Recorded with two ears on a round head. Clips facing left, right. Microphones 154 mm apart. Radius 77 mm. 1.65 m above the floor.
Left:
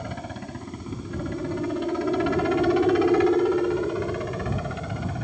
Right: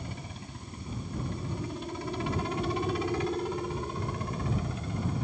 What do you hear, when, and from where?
0.0 s a helicopter: 50° left (ahead or behind); by 5.2 s 55° left (ahead or behind)